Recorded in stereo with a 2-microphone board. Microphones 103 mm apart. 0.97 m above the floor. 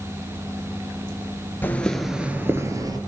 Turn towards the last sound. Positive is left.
turn(degrees=-40)  # may be behind; listen again after turning